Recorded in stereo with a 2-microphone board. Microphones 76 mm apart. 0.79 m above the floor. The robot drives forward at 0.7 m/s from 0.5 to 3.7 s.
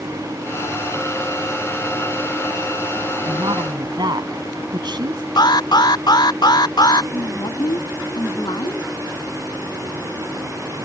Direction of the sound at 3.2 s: 70° right (ahead or behind).